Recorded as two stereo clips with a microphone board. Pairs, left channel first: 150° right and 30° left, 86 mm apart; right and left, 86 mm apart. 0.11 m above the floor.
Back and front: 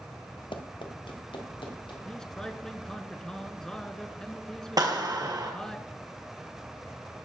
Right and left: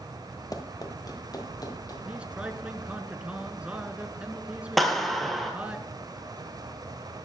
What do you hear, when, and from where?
0.5 s running footsteps: 135° right, 1.6 m; by 1.9 s 130° right, 4 m
2.0 s a man speaking: 140° left, 1.2 m
4.8 s a clap: straight ahead, 1.9 m